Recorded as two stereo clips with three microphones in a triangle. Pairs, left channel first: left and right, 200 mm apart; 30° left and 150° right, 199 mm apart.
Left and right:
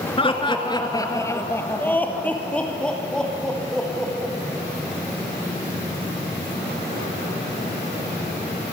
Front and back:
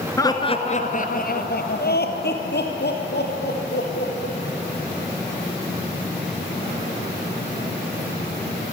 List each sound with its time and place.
0.2 s laughter: 85° left, 1.3 m; by 4.3 s straight ahead, 5 m